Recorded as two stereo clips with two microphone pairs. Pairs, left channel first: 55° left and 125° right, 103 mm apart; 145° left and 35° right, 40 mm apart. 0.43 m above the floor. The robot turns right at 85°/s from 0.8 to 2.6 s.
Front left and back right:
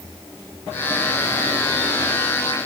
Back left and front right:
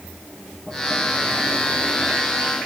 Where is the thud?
No thud in this recording.